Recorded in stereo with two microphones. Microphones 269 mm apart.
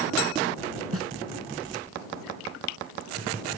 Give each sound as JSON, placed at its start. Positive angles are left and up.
{"t": 0.9, "sound": "a snare drum", "side_deg": -60}